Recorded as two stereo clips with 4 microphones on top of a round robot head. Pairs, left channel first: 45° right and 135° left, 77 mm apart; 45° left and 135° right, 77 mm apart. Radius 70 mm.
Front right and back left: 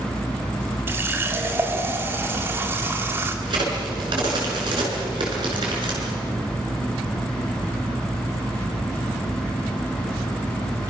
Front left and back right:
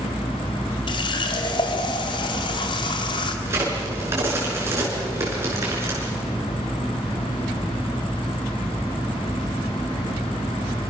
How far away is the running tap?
About 2.0 m.